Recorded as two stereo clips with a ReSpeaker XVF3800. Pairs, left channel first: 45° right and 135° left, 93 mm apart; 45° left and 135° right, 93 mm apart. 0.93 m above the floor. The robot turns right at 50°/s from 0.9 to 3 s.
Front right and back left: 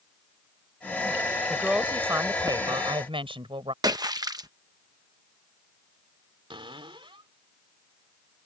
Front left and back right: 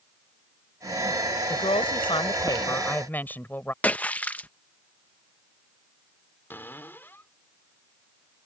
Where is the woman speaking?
40° left; by 3.7 s 115° left.